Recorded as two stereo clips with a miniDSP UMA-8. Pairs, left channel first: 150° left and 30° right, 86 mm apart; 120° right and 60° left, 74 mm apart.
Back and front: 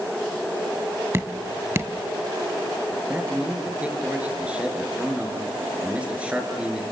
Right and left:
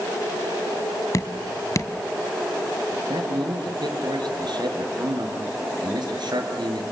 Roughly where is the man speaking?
Ahead left.